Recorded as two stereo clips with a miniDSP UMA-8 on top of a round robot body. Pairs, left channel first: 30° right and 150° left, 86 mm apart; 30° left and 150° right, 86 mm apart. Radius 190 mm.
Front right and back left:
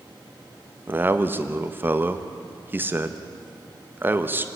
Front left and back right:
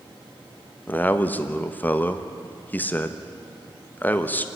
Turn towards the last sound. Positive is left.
turn(degrees=95)